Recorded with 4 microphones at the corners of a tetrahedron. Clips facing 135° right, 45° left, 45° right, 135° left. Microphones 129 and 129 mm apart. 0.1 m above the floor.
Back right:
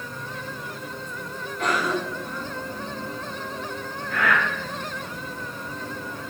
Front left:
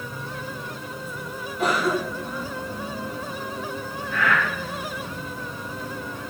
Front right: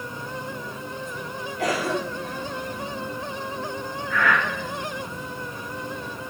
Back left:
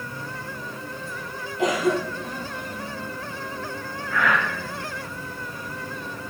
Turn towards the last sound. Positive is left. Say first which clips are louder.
# even, even
turn(degrees=-155)